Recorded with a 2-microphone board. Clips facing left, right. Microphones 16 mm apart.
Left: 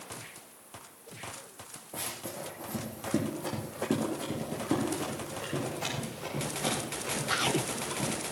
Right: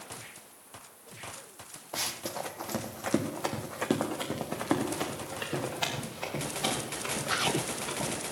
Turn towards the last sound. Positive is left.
turn(degrees=-55)  # may be behind; listen again after turning